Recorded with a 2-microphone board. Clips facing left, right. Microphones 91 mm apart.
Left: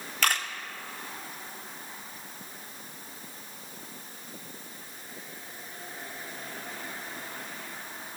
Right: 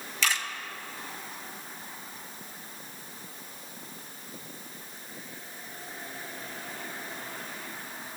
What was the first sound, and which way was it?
A camera shutter, 55° left (ahead or behind).